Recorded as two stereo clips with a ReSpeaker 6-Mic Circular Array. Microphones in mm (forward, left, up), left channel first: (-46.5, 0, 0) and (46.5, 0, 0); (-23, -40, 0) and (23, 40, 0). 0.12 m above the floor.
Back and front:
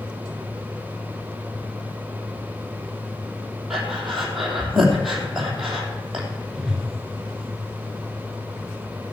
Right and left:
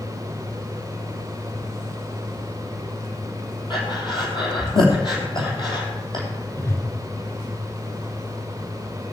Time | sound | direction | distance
3.7 | breathing | 90° right | 2.5 m
6.5 | a whoosh | 80° right | 1.4 m